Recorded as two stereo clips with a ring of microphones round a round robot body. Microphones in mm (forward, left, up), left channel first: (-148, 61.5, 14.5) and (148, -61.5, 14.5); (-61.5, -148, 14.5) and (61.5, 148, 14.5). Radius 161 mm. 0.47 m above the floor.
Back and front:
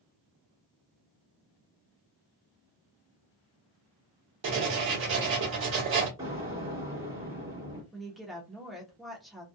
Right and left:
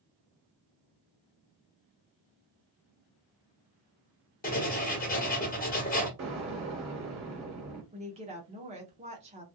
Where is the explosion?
50° left, 1.6 m.